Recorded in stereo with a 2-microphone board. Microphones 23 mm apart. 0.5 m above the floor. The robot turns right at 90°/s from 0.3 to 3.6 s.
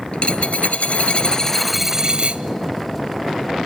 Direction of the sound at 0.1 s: 55° left.